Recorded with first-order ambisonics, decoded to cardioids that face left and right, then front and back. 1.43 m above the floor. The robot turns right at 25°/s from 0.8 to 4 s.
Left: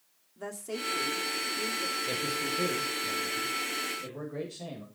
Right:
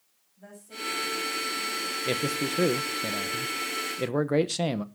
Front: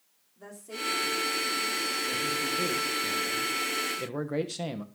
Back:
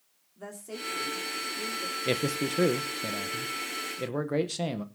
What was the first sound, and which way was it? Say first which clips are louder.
A woman speaking: left 3 dB, front 2 dB; 105° left.